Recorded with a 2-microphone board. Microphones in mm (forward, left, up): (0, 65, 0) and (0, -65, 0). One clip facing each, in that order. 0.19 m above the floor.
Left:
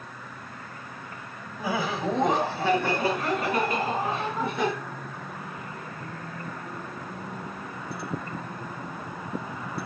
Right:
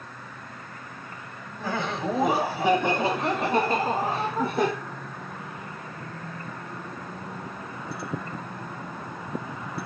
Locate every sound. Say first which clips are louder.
1.6 s laughter: left 1 dB; 10° left (ahead or behind), 1.1 m; by 4.7 s 40° right (ahead or behind), 2 m